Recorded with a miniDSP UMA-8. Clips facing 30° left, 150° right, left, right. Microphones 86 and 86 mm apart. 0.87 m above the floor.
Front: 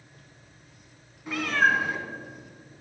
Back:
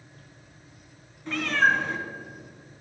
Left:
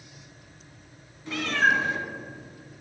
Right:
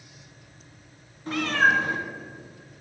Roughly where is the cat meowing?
Ahead right.